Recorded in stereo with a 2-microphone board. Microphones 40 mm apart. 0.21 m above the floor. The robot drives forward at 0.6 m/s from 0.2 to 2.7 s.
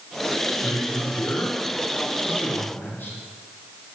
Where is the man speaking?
60° left (ahead or behind), 3 m; by 3.2 s 55° left (ahead or behind), 3.5 m.